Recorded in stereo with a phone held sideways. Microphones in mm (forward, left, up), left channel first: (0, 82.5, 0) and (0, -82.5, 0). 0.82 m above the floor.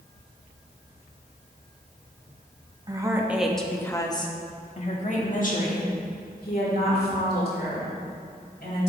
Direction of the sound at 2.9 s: 25° right (ahead or behind).